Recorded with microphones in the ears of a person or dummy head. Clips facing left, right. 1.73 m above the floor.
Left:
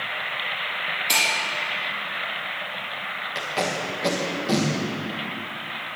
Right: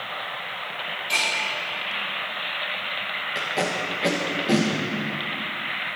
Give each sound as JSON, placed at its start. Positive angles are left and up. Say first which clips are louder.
{"t": 1.1, "sound": "breaking glass", "louder": "left 3 dB", "side_deg": 70, "distance_m": 4.5}
{"t": 3.4, "sound": "tape being pulled", "louder": "even", "side_deg": -15, "distance_m": 1.5}